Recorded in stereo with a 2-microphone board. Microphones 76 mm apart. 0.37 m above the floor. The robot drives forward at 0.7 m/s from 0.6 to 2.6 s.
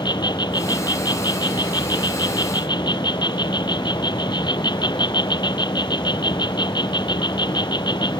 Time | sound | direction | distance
0.0 | an insect | 70° left (ahead or behind) | ?